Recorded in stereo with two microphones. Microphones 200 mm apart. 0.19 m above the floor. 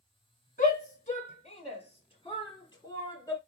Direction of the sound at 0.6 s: 45° left (ahead or behind).